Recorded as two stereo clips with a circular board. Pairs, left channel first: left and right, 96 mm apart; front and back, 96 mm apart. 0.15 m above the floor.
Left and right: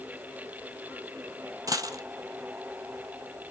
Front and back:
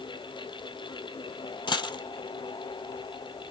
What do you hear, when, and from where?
1.7 s a dropped coin: 40° right, 1.0 m